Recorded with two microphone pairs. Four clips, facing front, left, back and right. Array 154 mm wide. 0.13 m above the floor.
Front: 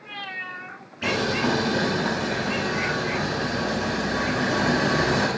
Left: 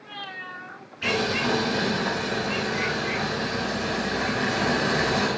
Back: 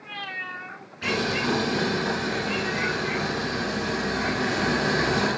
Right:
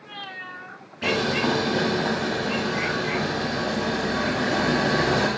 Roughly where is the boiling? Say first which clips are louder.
Right 2 dB, front 2 dB; ahead right.